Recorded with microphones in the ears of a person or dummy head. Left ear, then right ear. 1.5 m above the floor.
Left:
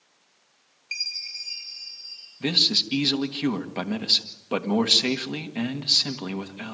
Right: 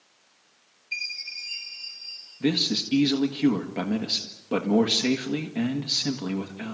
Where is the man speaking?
30° left (ahead or behind), 1.8 m.